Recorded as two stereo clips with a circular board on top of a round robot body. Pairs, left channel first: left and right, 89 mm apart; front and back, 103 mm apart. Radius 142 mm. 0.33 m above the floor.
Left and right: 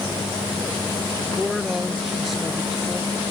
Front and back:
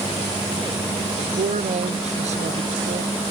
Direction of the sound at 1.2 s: Straight behind.